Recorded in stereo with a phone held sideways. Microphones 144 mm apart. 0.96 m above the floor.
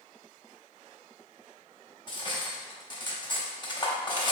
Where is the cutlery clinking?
35° left (ahead or behind), 0.8 m.